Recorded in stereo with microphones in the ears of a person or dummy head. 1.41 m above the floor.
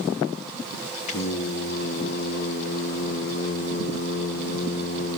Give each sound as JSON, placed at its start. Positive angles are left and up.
{"t": 1.1, "sound": "singing", "side_deg": 40, "distance_m": 1.6}